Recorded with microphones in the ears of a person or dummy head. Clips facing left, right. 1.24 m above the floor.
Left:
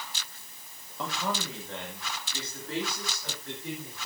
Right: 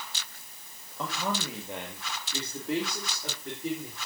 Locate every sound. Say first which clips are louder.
1.0 s a man speaking: right 1 dB; 5° right (ahead or behind), 1.2 m; by 4.0 s 25° right (ahead or behind), 3.5 m